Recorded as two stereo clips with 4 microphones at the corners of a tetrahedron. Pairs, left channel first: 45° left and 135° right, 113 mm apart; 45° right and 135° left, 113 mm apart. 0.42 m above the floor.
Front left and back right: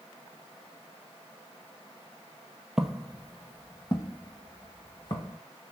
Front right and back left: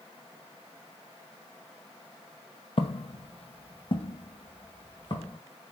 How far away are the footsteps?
About 0.6 m.